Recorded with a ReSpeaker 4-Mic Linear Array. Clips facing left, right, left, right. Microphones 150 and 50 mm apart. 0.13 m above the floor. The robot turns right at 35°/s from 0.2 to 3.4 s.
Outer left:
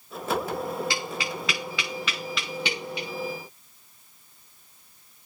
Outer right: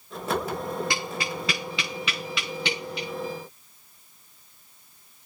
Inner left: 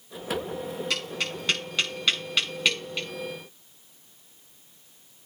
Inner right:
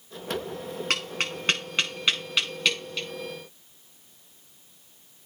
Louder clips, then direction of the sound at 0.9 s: Outer right 1 dB, inner right 5 dB; 55° right (ahead or behind).